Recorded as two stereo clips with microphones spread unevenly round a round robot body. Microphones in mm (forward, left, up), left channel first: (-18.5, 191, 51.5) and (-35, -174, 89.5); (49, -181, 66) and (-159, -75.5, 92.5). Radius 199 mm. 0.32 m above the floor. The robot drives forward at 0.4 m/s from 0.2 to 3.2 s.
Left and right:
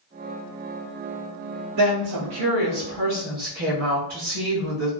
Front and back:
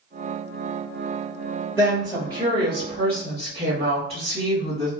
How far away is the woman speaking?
About 1.7 m.